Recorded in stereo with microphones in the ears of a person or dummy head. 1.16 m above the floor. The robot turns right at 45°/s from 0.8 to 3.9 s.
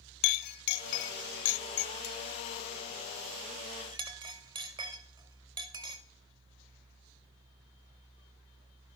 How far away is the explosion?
No explosion in this recording.